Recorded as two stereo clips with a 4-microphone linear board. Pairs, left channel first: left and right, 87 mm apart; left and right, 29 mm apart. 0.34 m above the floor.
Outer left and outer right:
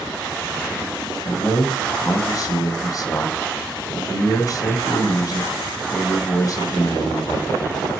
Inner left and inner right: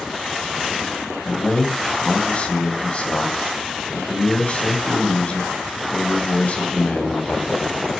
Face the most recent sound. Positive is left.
turn(degrees=45)  # may be behind; listen again after turning